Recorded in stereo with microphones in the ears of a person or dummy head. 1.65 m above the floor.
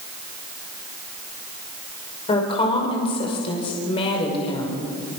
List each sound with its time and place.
2.3 s a woman speaking: 35° left (ahead or behind), 5 m